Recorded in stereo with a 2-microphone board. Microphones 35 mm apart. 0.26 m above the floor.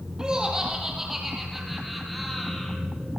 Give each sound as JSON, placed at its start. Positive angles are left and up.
{"t": 0.2, "sound": "laughter", "side_deg": -20, "distance_m": 7.5}